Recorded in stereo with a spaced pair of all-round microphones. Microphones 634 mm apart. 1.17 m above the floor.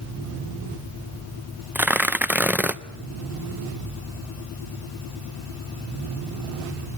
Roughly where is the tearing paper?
Centre.